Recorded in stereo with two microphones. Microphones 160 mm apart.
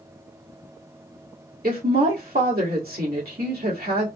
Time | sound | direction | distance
1.6 | a woman speaking | 75° right (ahead or behind) | 1.7 m